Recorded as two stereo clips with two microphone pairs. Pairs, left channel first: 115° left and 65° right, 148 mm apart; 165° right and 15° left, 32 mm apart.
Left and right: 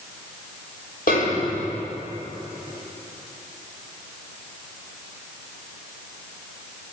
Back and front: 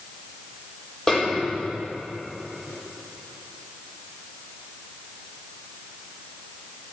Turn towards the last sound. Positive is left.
turn(degrees=125)